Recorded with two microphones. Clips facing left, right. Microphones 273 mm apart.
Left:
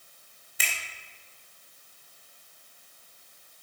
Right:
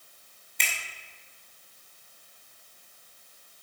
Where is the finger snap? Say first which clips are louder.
Even; 5° left (ahead or behind), 2.5 m.